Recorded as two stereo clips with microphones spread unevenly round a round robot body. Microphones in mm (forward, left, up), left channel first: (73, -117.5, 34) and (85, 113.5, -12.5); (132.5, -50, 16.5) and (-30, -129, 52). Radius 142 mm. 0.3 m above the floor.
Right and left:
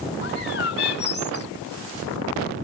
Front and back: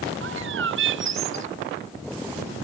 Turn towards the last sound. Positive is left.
turn(degrees=-150)